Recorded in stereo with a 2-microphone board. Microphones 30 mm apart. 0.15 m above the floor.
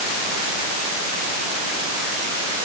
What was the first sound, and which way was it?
Only background noise.